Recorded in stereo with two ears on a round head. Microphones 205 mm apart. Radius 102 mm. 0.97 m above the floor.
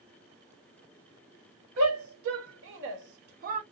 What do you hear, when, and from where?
1.8 s a shout: 65° right (ahead or behind), 1.7 m; by 3.6 s 30° right (ahead or behind), 0.6 m